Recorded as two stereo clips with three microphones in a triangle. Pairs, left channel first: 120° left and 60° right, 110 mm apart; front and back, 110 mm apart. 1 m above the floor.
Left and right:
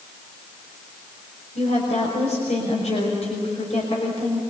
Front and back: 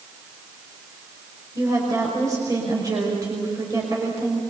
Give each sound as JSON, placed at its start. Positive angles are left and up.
{"t": 1.6, "sound": "a woman speaking", "azimuth_deg": 120, "distance_m": 5.5}